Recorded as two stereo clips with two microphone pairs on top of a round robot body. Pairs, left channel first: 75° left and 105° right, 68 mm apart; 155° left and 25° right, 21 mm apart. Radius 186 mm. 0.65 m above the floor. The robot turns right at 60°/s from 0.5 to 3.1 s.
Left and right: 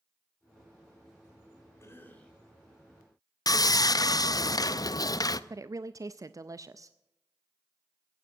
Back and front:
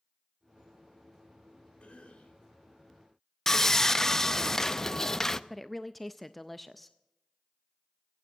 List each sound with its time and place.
1.8 s a cough: 125° left, 4 m; by 2.4 s 160° left, 4 m
3.5 s sawing: 90° left, 0.7 m
5.5 s a woman speaking: 130° right, 0.7 m